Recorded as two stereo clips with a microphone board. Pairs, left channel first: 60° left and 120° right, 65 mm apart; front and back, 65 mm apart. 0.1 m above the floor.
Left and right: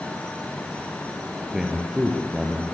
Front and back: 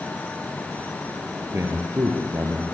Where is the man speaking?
160° left, 2.0 m; by 2.6 s 170° left, 2.5 m.